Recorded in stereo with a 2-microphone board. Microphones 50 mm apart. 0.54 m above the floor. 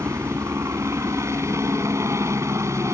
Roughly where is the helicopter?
Right.